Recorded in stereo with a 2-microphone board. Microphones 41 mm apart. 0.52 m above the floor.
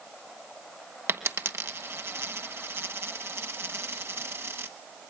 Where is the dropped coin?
75° right (ahead or behind), 1.2 m.